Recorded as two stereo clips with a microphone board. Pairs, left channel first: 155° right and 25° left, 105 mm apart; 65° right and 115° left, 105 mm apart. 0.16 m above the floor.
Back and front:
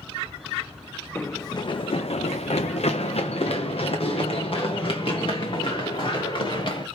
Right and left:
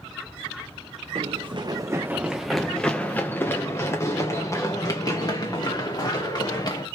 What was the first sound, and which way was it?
Running footsteps, 135° left.